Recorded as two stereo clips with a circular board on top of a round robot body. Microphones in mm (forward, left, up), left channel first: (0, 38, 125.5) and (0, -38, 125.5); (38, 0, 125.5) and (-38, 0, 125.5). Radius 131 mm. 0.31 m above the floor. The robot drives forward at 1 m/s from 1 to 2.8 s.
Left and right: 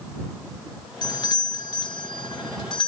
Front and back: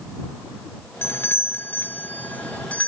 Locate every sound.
1.0 s a doorbell: 60° left; by 2.9 s 75° left